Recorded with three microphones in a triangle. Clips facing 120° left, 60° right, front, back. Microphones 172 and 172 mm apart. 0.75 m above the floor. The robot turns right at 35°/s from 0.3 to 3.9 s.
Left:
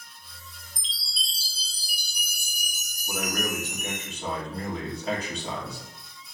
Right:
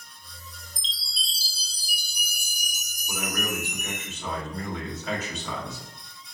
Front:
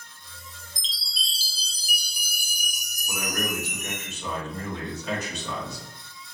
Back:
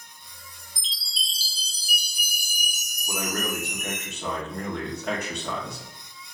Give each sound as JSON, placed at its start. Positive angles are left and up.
{"t": 0.8, "sound": "a chime", "azimuth_deg": -165, "distance_m": 1.0}
{"t": 3.1, "sound": "a man speaking", "azimuth_deg": 145, "distance_m": 1.4}